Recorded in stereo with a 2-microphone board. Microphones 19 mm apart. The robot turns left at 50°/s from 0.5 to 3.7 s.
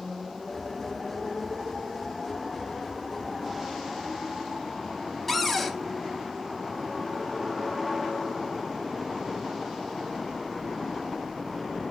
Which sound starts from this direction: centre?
A cupboard door, at 5.3 s.